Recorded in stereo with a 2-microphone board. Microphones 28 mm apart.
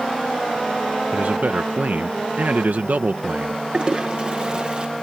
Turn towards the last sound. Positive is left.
turn(degrees=-35)  # may be behind; listen again after turning